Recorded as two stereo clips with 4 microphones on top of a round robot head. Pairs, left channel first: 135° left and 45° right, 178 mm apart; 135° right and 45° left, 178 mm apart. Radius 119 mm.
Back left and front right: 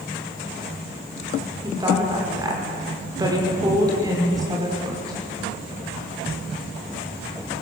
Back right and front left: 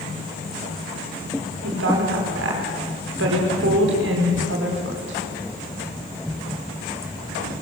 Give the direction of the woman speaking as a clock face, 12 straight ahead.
11 o'clock.